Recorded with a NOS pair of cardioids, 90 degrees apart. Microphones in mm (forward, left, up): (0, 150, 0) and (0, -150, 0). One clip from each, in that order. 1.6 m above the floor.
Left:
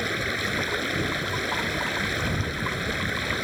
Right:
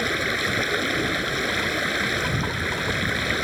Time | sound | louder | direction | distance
0.0 | running water | right 3 dB | 25° right | ?